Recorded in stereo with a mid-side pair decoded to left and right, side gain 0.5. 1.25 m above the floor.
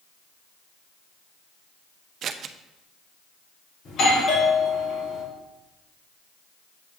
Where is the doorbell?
60° left, 3.5 m.